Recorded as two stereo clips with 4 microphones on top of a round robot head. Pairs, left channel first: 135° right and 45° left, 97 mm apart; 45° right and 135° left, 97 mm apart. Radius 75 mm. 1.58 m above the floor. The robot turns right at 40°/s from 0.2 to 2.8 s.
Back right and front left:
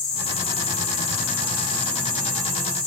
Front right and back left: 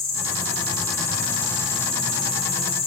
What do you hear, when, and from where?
0.0 s an insect: 165° right, 1.7 m; by 2.9 s 60° right, 1.7 m